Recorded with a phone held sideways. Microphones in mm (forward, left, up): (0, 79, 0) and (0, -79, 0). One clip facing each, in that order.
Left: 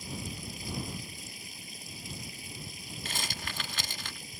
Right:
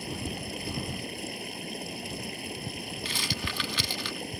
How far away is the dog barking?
No dog barking in this recording.